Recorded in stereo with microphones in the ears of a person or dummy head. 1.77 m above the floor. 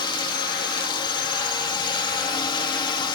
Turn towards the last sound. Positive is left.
turn(degrees=25)  # may be behind; listen again after turning